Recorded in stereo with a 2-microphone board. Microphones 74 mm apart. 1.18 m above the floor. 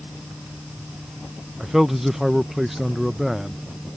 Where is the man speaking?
Centre (ahead or behind).